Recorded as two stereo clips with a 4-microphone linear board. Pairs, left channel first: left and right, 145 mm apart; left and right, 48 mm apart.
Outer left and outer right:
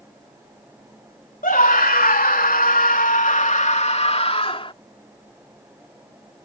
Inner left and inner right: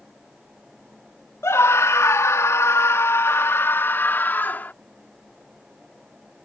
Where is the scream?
70° left (ahead or behind); by 4.7 s 40° left (ahead or behind).